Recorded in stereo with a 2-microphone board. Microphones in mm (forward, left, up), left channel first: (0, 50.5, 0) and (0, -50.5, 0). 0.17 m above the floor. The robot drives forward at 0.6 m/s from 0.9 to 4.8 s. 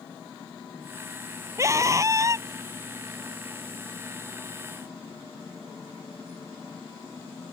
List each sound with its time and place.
1.6 s a scream: 30° right (ahead or behind)